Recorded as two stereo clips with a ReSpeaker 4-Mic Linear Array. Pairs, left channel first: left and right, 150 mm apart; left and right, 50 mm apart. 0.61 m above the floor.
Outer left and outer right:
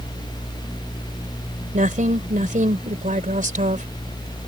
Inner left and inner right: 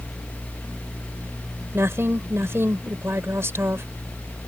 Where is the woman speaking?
60° right (ahead or behind).